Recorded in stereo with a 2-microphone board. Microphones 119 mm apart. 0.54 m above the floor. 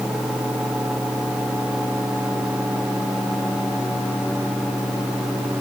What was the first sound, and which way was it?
Only background noise.